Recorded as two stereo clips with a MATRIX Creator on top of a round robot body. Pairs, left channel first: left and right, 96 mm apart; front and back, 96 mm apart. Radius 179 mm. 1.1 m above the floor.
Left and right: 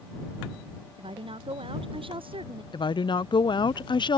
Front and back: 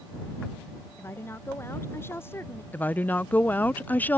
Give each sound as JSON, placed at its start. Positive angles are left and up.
{"t": 1.0, "sound": "a woman speaking", "azimuth_deg": -65}
{"t": 2.7, "sound": "a woman speaking", "azimuth_deg": 70}